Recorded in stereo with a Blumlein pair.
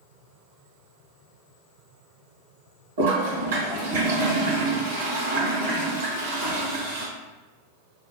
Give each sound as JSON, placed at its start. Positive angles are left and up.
{"t": 3.0, "sound": "a toilet flushing", "azimuth_deg": -65, "distance_m": 1.7}